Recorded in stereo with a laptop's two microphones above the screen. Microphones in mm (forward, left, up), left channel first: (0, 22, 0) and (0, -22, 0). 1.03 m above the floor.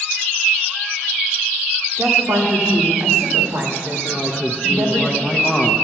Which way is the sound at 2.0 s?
75° right (ahead or behind).